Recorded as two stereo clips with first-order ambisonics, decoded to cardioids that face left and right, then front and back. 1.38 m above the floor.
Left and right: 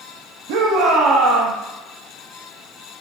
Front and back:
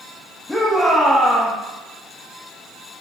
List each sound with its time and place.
0.5 s a shout: 80° right, 1.8 m